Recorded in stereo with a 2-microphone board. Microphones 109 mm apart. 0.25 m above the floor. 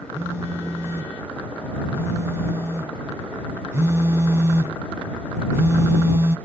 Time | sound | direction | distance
0.1 | a phone buzzing | 25° right (ahead or behind) | ?